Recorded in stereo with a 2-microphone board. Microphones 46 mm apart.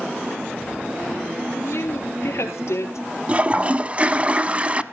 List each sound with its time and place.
1.5 s a woman speaking: 70° left (ahead or behind), 3 m; by 3.0 s 75° left (ahead or behind), 4 m
3.3 s a toilet flushing: 30° right (ahead or behind), 0.6 m